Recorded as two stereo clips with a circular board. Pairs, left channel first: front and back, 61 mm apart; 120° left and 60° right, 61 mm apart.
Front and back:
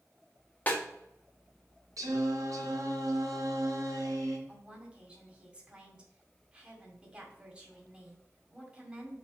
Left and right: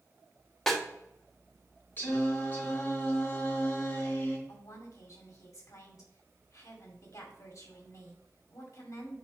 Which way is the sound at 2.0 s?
175° left.